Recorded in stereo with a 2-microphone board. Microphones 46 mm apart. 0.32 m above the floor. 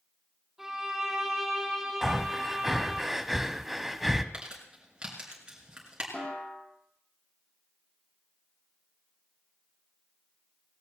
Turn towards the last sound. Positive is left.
turn(degrees=25)  # may be behind; listen again after turning